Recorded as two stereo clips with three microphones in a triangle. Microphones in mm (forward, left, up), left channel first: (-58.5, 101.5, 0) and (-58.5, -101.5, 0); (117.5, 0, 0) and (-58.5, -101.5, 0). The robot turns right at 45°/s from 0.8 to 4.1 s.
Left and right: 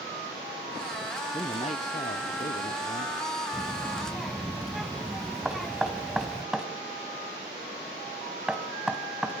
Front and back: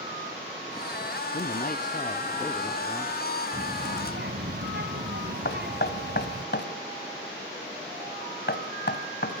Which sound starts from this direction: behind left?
A child speaking, at 3.5 s.